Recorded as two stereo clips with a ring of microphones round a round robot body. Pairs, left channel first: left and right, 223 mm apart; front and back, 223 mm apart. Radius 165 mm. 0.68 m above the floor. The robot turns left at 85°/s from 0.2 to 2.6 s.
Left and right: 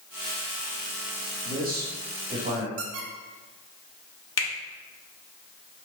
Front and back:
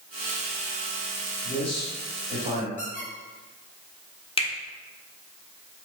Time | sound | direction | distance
1.4 | a man speaking | 40° right | 1.6 m
2.8 | a squeak | 70° right | 1.0 m
4.4 | a finger snap | 65° left | 1.3 m